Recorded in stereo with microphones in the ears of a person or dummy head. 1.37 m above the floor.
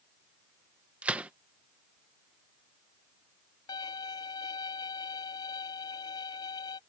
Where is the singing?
I don't hear singing.